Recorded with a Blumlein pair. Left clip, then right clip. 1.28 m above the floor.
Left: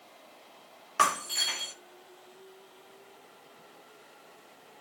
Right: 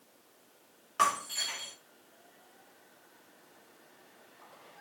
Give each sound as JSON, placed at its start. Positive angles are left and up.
{"t": 1.0, "sound": "breaking glass", "azimuth_deg": 20, "distance_m": 1.4}